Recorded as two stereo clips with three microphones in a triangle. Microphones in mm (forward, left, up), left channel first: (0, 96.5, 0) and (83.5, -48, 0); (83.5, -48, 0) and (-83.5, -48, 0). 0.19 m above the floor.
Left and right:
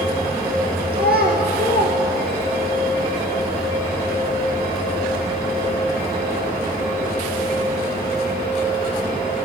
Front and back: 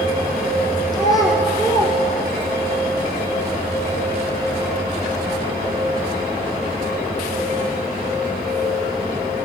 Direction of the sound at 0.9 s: 65° right.